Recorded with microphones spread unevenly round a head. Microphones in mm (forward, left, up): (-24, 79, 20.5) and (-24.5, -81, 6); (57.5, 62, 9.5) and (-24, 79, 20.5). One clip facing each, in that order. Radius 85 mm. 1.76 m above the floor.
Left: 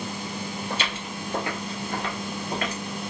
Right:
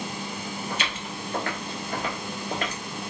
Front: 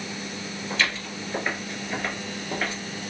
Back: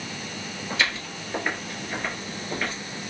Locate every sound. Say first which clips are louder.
0.7 s footsteps: left 1 dB, even; 115° left, 2 m; by 2.8 s 85° right, 1.8 m